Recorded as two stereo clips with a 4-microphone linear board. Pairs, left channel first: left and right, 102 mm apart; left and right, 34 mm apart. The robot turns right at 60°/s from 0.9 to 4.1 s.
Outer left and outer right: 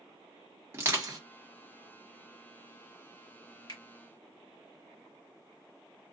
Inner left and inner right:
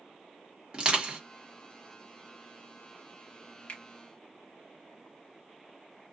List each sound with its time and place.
0.7 s crushing: 25° right (ahead or behind), 1.3 m; by 1.2 s 45° right (ahead or behind), 1.3 m
3.7 s a finger snap: 40° left (ahead or behind), 1.3 m; by 3.8 s 50° left (ahead or behind), 1.3 m